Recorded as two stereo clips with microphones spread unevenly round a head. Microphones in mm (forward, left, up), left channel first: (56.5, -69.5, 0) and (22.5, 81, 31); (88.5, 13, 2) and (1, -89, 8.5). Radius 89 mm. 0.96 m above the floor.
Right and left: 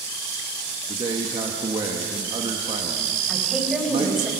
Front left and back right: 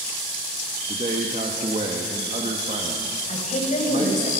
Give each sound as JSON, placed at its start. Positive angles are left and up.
{"t": 0.9, "sound": "a man speaking", "azimuth_deg": 170, "distance_m": 1.7}
{"t": 3.3, "sound": "a woman speaking", "azimuth_deg": 15, "distance_m": 5.0}